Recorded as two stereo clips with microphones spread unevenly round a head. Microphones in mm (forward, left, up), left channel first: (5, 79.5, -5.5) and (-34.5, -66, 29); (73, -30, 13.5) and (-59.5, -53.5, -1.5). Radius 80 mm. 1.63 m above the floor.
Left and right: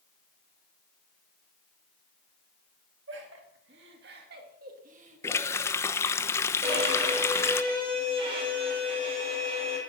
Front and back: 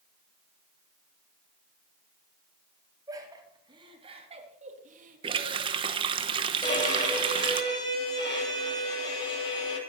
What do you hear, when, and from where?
3.1 s laughter: 105° right, 4.5 m; by 6.2 s straight behind, 3.5 m
5.2 s a running tap: 155° left, 0.7 m
6.6 s a violin: 45° right, 8 m